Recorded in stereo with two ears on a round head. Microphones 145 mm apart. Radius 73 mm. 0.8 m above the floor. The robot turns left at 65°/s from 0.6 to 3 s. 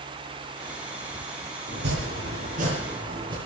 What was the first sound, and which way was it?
Chopping, 60° right.